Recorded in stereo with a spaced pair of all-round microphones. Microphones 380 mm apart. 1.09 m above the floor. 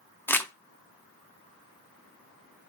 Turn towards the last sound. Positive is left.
turn(degrees=5)  # may be behind; listen again after turning